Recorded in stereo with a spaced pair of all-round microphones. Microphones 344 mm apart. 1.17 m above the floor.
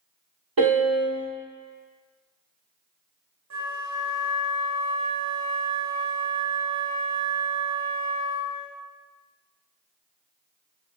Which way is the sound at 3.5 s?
55° right (ahead or behind).